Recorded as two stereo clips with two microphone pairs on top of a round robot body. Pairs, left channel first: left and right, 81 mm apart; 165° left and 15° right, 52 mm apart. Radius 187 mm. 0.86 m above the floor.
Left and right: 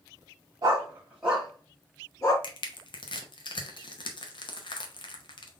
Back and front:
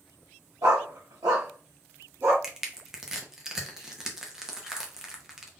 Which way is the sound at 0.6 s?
40° right.